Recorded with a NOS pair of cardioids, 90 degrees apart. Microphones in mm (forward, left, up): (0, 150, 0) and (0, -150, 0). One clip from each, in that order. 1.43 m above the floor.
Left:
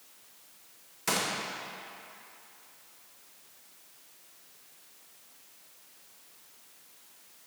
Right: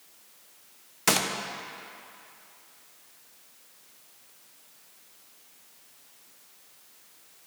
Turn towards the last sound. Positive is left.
turn(degrees=-35)